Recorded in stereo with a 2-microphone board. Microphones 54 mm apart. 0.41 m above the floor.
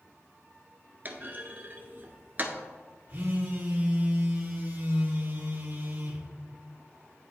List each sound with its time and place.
1.1 s a clunk: 35° right (ahead or behind), 0.9 m
3.1 s a phone buzzing: 35° right (ahead or behind), 1.9 m